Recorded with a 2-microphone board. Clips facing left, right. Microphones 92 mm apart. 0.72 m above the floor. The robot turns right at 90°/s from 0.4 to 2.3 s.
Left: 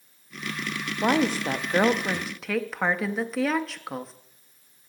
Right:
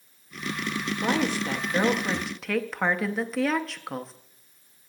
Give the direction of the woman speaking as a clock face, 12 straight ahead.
10 o'clock.